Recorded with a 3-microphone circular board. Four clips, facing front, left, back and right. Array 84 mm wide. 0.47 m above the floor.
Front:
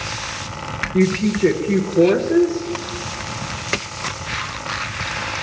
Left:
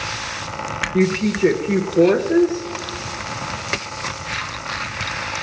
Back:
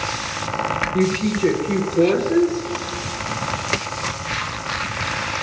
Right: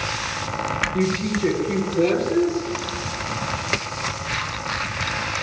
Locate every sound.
0.9 s a woman speaking: 65° left, 1.0 m